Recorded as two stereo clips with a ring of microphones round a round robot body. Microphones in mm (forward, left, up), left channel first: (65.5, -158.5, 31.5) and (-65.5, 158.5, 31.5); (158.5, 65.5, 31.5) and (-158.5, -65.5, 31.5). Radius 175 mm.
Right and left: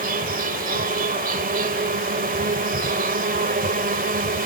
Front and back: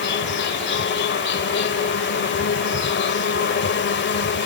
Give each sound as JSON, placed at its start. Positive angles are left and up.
{"t": 0.0, "sound": "an insect", "azimuth_deg": 60}